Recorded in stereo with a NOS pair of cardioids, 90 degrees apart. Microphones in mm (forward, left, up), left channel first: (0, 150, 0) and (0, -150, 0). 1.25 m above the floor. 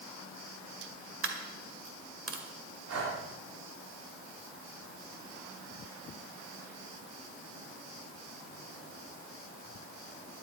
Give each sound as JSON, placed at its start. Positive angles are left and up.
{"t": 1.2, "sound": "a dropped coin", "azimuth_deg": -50, "distance_m": 2.0}
{"t": 2.9, "sound": "breathing", "azimuth_deg": -55, "distance_m": 3.0}